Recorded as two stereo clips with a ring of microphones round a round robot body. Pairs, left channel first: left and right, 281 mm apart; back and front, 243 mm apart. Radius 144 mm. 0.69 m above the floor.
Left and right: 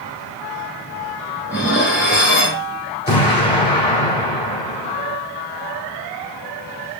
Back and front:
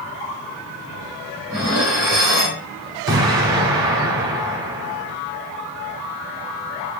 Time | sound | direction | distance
1.5 | dishes clattering | 5° right | 1.8 m
3.1 | an explosion | 20° left | 1.9 m